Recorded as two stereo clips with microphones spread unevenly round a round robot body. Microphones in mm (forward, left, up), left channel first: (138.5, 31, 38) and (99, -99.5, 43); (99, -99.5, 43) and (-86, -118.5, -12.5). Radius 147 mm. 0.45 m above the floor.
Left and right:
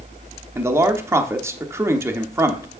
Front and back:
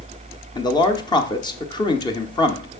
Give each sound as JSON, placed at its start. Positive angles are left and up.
{"t": 0.6, "sound": "a man speaking", "azimuth_deg": -70, "distance_m": 0.8}